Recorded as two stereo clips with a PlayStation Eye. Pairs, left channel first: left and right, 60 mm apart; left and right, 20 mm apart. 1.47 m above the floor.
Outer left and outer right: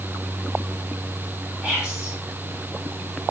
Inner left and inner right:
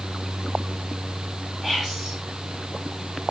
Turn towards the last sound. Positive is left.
turn(degrees=-10)  # may be behind; listen again after turning